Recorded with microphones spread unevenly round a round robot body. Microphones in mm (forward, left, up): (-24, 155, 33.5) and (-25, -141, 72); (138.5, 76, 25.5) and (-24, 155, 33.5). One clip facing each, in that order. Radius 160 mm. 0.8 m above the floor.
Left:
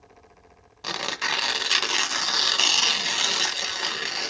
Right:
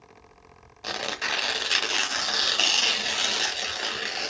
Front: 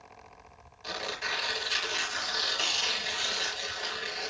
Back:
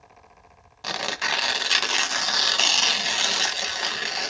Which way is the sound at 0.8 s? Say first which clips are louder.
Even, back 6 dB; 175° left.